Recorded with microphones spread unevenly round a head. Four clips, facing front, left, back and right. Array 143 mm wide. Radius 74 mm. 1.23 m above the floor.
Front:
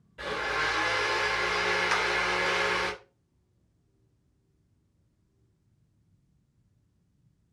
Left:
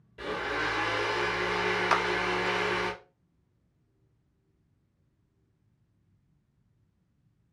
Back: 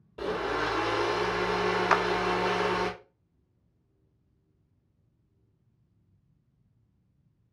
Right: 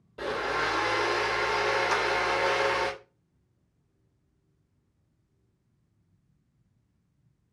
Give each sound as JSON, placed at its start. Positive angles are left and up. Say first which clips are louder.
{"t": 0.2, "sound": "a blender", "louder": "right 3 dB, back 2 dB", "azimuth_deg": -155, "distance_m": 2.5}
{"t": 1.9, "sound": "a clap", "louder": "left 1 dB, back 4 dB", "azimuth_deg": 160, "distance_m": 0.5}